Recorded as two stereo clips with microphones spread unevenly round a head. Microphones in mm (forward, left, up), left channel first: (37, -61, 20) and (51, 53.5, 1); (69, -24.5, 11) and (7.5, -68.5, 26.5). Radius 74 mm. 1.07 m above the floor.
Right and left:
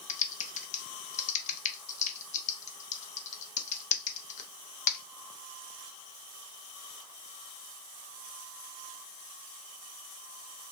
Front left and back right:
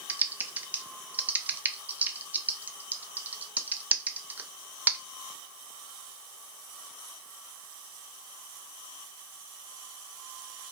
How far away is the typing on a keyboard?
About 0.6 m.